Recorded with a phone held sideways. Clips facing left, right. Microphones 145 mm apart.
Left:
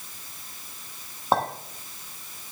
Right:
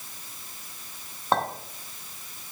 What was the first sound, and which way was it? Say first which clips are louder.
A clink: left 1 dB; 10° left (ahead or behind).